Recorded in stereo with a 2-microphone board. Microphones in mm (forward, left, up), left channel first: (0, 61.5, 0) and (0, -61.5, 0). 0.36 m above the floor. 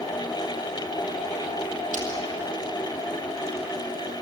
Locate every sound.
1.9 s breaking glass: 75° right (ahead or behind), 5.5 m